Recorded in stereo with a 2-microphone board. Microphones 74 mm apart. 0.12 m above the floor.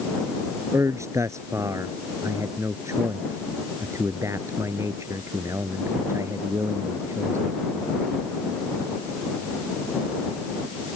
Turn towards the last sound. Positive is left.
turn(degrees=-45)  # may be behind; listen again after turning